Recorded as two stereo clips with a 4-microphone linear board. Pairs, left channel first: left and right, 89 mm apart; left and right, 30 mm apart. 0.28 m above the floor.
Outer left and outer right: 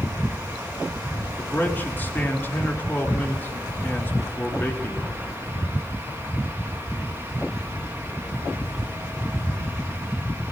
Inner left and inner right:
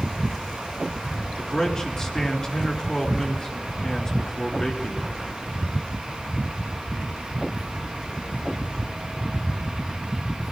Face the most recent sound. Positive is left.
turn(degrees=25)  # may be behind; listen again after turning